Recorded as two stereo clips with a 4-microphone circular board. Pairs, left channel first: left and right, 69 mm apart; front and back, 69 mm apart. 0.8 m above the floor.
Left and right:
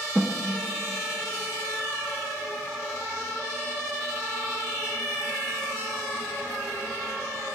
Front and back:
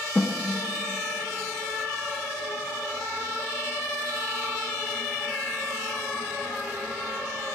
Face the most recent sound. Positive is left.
turn(degrees=-35)